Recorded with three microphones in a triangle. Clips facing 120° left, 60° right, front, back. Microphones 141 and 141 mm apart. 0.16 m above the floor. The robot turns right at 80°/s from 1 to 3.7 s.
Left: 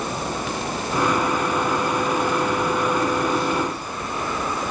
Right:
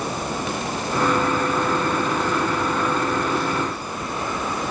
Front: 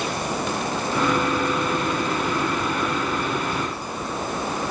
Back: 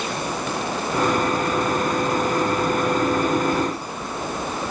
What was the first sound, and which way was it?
Only background noise.